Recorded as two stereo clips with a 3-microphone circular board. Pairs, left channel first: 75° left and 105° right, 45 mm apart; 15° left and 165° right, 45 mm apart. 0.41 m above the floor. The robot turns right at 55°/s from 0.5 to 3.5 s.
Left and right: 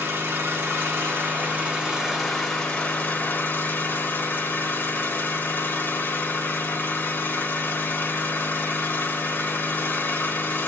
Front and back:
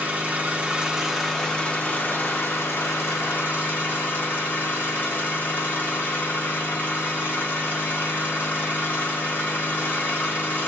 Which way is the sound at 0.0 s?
110° right.